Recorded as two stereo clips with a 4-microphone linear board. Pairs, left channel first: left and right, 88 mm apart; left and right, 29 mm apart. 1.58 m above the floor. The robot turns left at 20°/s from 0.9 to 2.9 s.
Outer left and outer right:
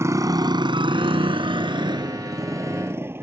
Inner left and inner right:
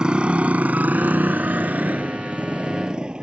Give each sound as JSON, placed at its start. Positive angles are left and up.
{"t": 0.0, "sound": "a motorcycle", "side_deg": -35}